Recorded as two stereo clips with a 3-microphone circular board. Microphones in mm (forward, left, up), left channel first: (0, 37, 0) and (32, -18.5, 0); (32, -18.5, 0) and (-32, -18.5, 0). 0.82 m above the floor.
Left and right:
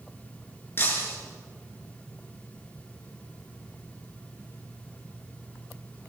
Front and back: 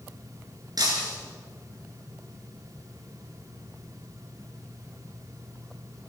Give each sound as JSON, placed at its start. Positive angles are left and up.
{"t": 0.8, "sound": "breaking glass", "azimuth_deg": 175, "distance_m": 5.0}